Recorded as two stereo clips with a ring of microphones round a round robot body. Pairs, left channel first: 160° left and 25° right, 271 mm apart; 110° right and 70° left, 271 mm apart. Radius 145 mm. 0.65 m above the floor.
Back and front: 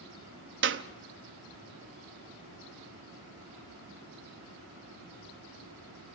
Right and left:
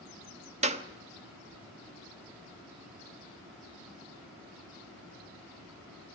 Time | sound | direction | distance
0.6 | a clap | 10° left | 0.8 m